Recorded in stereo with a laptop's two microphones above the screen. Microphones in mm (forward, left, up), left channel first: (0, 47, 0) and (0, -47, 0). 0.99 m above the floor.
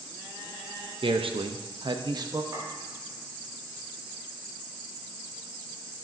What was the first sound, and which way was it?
A man speaking, 65° right (ahead or behind).